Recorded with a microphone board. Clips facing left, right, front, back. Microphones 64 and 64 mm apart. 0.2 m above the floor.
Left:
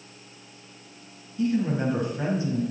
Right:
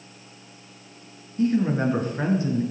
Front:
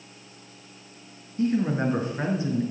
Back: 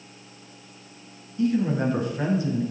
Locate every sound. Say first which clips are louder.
1.4 s a man speaking: right 3 dB, back 1 dB; 45° right, 3 m; by 2.6 s 65° right, 3 m